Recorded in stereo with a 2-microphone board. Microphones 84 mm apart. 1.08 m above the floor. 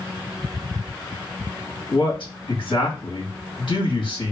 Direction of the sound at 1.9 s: 65° left (ahead or behind).